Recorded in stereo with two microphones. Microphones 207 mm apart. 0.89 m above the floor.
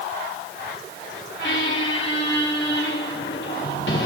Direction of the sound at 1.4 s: 70° left (ahead or behind).